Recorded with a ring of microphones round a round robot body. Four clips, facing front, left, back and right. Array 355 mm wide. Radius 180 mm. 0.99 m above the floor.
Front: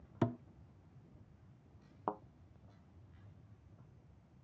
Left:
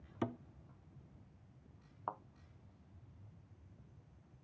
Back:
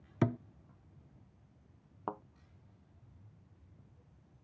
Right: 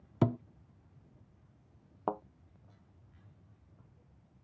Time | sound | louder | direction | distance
0.2 | a thud | right 10 dB, back 4 dB | 115° right | ?
2.1 | a thud | right 9 dB, front 1 dB | 95° right | ?